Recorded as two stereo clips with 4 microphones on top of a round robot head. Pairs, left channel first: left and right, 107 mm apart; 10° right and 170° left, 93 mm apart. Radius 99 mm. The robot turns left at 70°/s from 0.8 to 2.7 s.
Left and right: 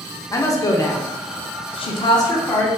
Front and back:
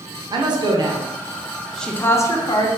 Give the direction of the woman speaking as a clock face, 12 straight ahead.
7 o'clock.